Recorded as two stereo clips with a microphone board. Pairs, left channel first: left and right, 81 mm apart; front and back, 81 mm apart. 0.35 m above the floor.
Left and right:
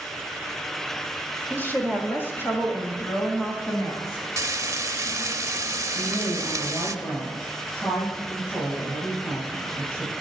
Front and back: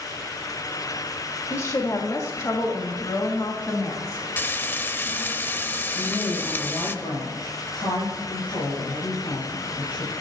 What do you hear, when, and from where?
1.5 s a woman speaking: 35° left, 1.7 m; by 4.3 s 50° left, 3 m
4.4 s frying: 55° right, 0.7 m
6.0 s a woman speaking: 35° left, 8 m